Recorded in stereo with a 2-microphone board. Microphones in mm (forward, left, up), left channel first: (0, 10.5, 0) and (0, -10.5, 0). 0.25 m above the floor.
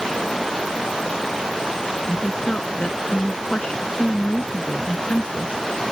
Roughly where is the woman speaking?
Left.